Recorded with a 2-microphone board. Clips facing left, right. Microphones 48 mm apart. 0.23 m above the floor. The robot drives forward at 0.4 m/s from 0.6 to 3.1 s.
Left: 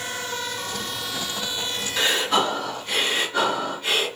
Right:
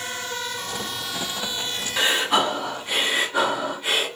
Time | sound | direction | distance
2.0 | breathing | 15° right (ahead or behind) | 1.7 m